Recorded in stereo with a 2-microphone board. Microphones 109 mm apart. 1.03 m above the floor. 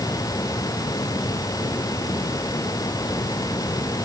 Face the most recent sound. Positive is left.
No sound to turn to.